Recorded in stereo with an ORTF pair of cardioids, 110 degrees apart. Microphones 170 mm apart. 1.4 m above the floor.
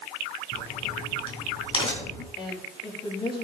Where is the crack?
30° left, 3.5 m.